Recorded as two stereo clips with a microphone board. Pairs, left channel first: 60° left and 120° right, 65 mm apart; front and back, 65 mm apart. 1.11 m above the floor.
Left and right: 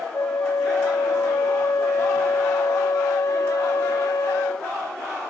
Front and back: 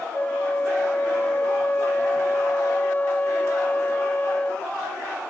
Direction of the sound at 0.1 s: 50° left.